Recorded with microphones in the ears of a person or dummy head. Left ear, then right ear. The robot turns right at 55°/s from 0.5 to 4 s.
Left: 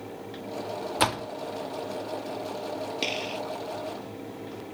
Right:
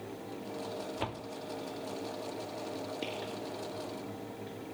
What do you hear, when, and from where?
1.0 s a door slam: 65° left (ahead or behind); by 1.3 s 60° left (ahead or behind)
3.0 s a gunshot: 45° left (ahead or behind); by 3.4 s 65° left (ahead or behind)